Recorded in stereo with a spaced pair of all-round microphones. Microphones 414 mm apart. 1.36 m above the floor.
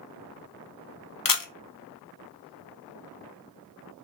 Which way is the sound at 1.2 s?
55° left (ahead or behind).